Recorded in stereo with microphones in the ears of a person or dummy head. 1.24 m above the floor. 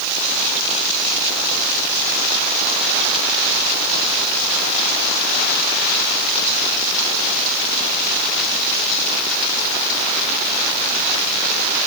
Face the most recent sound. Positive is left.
No sound to turn to.